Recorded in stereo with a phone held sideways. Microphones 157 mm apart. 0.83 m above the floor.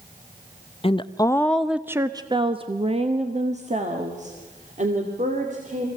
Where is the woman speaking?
35° left (ahead or behind), 0.7 m; by 5.9 s 50° right (ahead or behind), 3 m.